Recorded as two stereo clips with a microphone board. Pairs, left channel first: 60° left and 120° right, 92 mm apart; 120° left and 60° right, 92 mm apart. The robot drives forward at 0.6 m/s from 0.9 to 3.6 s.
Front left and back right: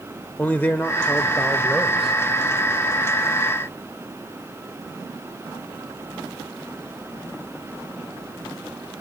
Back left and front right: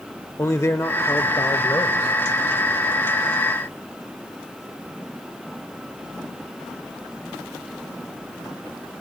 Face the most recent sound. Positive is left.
turn(degrees=165)